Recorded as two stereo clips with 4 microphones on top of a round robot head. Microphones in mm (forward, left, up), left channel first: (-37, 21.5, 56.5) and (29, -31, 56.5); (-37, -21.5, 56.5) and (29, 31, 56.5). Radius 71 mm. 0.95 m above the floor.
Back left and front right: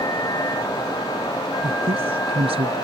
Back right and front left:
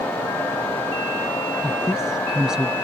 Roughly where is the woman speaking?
Ahead right.